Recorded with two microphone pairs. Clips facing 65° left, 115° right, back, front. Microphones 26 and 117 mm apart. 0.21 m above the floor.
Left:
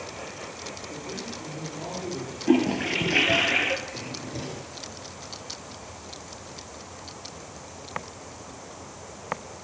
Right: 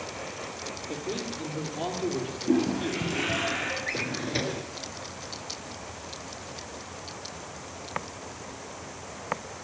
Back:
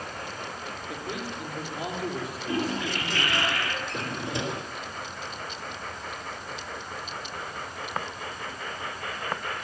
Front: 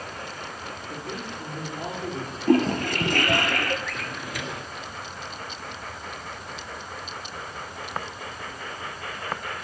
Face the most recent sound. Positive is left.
turn(degrees=-120)